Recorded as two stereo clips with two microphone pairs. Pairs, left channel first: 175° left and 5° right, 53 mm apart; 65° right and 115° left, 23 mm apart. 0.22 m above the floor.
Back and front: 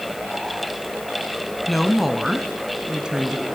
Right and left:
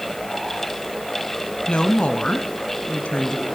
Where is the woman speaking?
95° right, 1.8 m; by 3.5 s 75° right, 2.5 m.